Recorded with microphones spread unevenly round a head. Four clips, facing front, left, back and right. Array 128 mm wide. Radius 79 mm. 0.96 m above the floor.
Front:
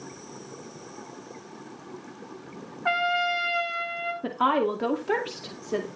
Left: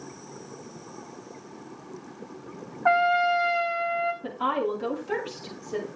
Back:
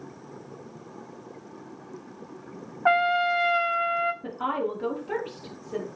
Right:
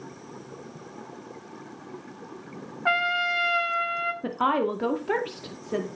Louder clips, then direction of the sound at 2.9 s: Left 5 dB, back 4 dB; 170° left.